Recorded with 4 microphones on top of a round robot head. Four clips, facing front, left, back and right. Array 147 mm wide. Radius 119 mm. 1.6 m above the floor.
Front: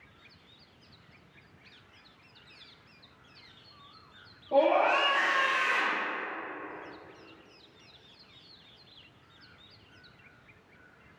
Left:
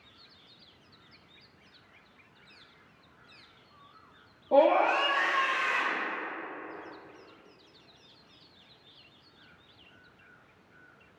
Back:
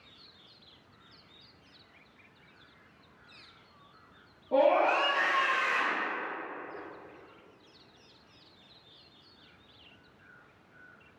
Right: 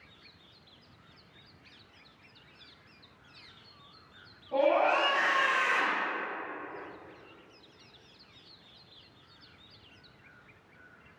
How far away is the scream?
About 0.7 m.